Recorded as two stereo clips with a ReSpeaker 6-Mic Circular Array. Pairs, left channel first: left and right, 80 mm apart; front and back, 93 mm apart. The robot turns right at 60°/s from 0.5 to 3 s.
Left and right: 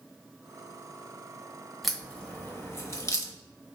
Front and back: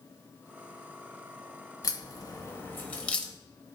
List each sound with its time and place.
1.8 s a crack: straight ahead, 0.6 m; by 3.3 s 70° left, 0.6 m